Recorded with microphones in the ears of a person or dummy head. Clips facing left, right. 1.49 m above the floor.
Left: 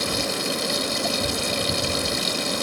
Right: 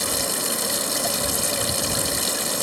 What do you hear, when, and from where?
0.0 s running water: 20° right (ahead or behind)